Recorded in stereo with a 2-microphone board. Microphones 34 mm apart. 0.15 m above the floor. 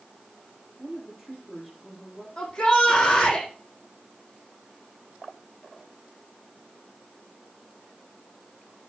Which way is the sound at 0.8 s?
5° right (ahead or behind).